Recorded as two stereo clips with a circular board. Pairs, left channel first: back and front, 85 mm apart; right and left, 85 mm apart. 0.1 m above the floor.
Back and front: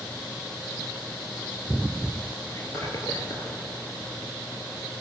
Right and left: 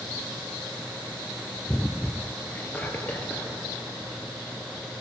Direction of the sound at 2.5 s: 155° right.